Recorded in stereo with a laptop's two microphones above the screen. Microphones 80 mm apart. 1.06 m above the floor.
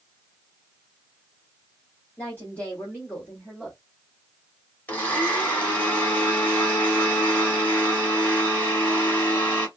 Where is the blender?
20° left (ahead or behind), 1.3 m.